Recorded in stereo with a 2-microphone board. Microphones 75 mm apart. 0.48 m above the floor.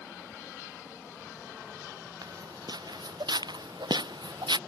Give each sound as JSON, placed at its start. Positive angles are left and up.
{"t": 2.2, "sound": "footsteps", "side_deg": -65}